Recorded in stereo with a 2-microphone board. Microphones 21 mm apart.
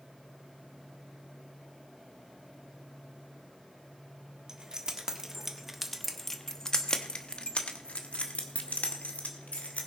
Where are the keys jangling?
30° right (ahead or behind), 1.8 m; by 9.9 s 85° left, 2.5 m.